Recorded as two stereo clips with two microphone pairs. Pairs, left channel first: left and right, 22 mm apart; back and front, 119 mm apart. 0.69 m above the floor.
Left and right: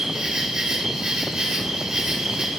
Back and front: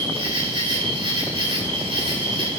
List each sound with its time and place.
0.0 s an insect: 40° right, 3.5 m